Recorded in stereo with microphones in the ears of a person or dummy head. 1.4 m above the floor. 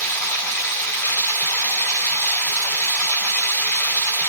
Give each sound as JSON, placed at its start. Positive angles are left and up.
{"t": 0.0, "sound": "running water", "side_deg": 10, "distance_m": 2.5}